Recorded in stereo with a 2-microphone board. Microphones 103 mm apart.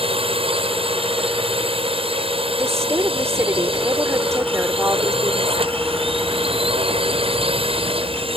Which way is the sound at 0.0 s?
65° right (ahead or behind).